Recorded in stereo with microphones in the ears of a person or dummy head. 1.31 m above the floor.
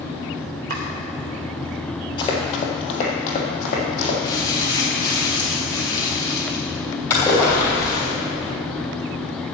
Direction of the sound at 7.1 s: 15° left (ahead or behind).